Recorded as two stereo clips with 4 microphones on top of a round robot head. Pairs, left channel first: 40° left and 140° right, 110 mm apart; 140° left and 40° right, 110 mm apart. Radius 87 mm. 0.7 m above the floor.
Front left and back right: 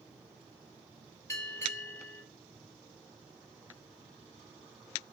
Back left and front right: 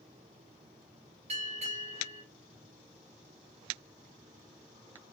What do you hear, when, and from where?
1.3 s a bell: 25° right, 3.5 m